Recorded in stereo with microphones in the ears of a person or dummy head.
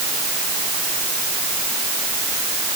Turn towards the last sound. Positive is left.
No sound to turn to.